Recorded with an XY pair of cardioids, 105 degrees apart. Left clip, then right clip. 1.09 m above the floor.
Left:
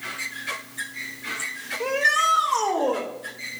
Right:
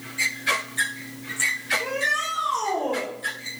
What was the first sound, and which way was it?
A shout, 50° left.